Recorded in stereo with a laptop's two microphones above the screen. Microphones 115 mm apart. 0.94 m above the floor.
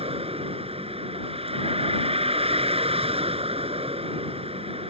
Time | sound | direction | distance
0.0 | a vehicle | 55° right (ahead or behind) | ?